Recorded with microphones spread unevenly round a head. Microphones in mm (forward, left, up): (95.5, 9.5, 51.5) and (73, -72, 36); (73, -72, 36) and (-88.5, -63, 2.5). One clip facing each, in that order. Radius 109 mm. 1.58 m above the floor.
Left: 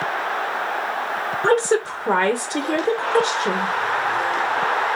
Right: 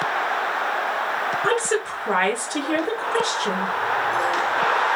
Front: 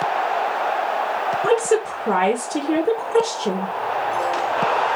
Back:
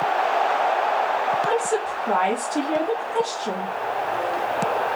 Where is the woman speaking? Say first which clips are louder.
Left 7 dB, front 5 dB; 10° left, 0.7 m.